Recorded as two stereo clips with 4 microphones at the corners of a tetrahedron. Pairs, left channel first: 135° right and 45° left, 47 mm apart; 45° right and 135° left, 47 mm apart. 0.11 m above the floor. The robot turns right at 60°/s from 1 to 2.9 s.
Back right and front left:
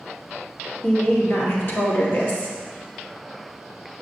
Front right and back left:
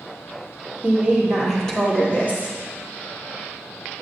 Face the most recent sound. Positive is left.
turn(degrees=-50)